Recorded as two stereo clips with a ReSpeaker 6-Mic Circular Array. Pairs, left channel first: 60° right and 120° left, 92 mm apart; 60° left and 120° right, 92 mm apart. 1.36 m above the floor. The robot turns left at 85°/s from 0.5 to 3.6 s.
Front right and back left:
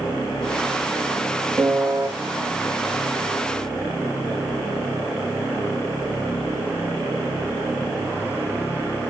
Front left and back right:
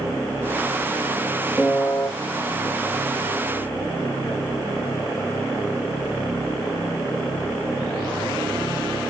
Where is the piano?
140° left, 1.1 m; by 2.1 s 95° left, 1.1 m.